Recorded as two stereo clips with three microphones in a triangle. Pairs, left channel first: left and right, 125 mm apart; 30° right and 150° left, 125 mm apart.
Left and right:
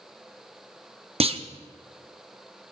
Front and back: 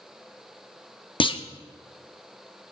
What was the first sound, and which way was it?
A clunk, 70° right.